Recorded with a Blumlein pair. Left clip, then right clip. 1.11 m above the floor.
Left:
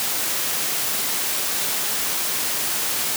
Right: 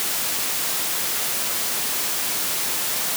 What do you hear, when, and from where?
Only background noise.